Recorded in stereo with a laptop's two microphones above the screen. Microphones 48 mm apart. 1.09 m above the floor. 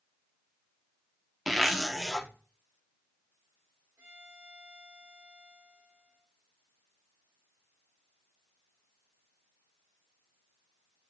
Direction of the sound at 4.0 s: 60° right (ahead or behind).